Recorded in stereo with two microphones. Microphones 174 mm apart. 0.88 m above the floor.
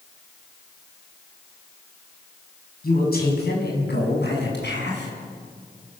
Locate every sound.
2.8 s a man speaking: 60° left (ahead or behind), 6 m; by 5.1 s 85° left, 7 m